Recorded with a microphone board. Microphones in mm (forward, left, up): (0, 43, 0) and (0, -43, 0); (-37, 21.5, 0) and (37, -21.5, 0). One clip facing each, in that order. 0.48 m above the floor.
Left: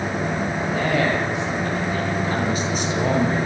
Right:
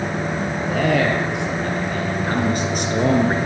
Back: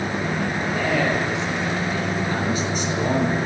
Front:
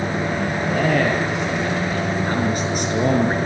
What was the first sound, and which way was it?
A man speaking, 65° right.